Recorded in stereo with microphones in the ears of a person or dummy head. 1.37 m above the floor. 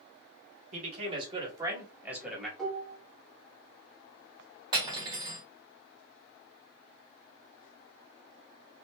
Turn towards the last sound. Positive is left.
turn(degrees=-25)  # may be behind; listen again after turning